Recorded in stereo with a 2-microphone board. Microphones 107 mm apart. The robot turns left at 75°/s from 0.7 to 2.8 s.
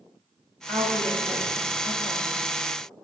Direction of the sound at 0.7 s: 175° right.